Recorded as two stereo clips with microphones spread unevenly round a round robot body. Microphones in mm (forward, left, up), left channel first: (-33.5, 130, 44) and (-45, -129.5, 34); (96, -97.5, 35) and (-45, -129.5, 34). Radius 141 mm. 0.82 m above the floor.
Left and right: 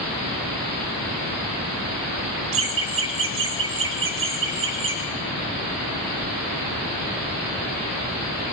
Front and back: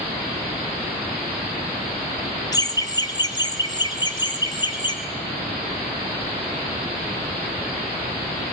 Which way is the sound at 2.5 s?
50° right.